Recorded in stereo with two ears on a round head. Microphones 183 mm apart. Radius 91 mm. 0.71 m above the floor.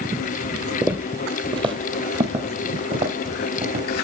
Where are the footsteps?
5° right (ahead or behind), 0.9 m; by 4.0 s 40° right (ahead or behind), 3 m.